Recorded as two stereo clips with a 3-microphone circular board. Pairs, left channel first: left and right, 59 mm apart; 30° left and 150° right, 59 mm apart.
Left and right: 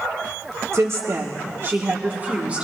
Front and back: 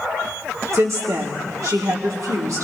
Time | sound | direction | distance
0.7 | a woman speaking | 120° right | 1.9 m